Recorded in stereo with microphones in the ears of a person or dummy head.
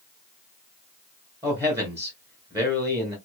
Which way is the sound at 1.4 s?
15° right (ahead or behind).